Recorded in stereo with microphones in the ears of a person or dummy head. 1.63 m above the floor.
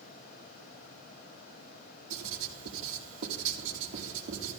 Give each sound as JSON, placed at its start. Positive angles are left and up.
{"t": 2.1, "sound": "writing", "side_deg": -65, "distance_m": 2.0}